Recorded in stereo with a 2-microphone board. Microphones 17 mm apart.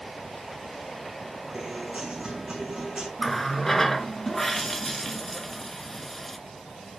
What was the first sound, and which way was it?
A guitar, 65° right (ahead or behind).